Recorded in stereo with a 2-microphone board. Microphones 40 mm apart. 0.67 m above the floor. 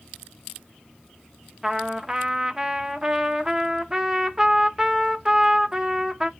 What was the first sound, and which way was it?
A trumpet, 15° right (ahead or behind).